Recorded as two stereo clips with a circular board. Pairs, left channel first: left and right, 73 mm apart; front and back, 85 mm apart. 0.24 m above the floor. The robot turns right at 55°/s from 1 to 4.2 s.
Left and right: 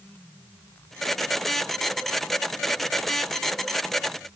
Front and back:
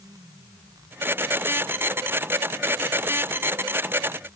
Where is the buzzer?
No buzzer in this recording.